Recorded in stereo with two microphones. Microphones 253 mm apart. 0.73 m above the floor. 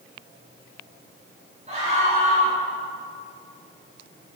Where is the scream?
30° right (ahead or behind), 5.5 m.